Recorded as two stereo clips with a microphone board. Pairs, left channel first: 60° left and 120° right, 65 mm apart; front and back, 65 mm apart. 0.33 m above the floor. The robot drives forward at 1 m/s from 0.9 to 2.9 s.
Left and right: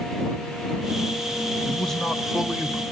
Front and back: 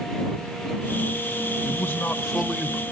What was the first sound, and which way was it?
A man speaking, 10° right.